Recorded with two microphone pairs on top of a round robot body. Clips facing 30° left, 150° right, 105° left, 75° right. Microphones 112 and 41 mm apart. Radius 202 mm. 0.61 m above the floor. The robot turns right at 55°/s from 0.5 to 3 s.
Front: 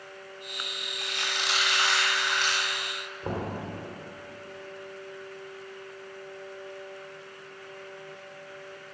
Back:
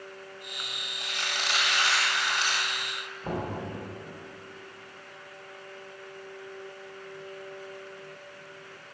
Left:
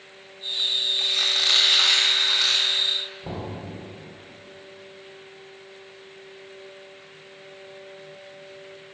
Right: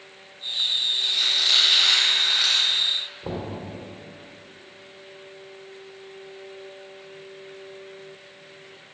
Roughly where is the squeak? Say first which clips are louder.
Even, even; behind.